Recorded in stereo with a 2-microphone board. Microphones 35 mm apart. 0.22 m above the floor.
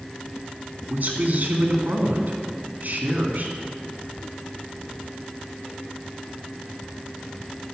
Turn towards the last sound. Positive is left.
turn(degrees=-55)  # may be behind; listen again after turning